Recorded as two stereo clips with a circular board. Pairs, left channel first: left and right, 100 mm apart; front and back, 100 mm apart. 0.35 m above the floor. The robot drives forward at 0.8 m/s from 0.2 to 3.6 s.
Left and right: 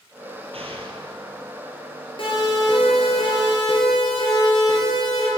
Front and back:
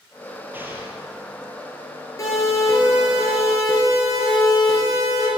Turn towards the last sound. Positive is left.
turn(degrees=45)